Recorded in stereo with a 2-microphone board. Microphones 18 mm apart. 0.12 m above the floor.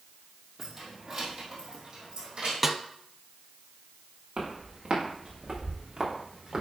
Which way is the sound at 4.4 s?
55° right (ahead or behind).